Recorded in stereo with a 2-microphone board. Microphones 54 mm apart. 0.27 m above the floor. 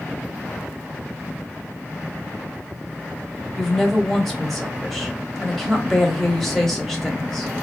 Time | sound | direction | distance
3.6 | a woman speaking | 5° left (ahead or behind) | 1.0 m